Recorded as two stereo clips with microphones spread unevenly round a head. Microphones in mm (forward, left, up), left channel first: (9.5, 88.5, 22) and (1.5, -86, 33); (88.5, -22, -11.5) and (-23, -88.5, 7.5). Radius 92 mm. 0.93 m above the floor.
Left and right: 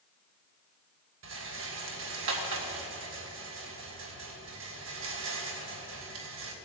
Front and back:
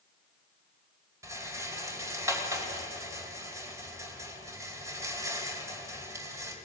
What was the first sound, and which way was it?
A rattle, 80° right.